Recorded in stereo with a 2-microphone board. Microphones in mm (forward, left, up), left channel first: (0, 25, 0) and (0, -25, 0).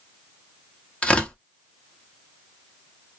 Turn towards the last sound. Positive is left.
turn(degrees=25)  # may be behind; listen again after turning